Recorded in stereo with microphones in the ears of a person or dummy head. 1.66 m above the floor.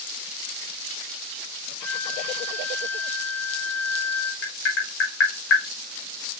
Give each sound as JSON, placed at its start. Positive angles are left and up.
{"t": 1.8, "sound": "a flute", "side_deg": 5, "distance_m": 0.5}
{"t": 4.4, "sound": "tapping", "side_deg": 75, "distance_m": 1.6}